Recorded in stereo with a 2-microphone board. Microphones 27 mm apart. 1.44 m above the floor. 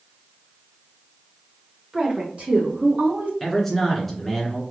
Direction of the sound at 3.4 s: 5° left (ahead or behind).